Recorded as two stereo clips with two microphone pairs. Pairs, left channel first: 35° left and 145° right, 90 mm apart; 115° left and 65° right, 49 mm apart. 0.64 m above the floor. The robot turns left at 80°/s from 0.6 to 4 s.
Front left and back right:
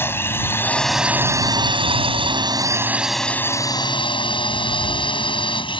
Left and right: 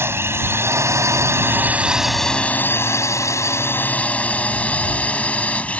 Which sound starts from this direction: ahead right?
A drone, at 0.0 s.